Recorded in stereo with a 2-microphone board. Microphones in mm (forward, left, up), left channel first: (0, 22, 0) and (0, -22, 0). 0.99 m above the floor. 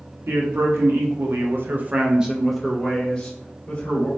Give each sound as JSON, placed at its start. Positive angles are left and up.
{"t": 0.3, "sound": "a man speaking", "side_deg": -75, "distance_m": 1.0}